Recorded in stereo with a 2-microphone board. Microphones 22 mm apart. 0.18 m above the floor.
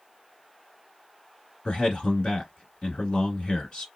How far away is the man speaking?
About 1.8 m.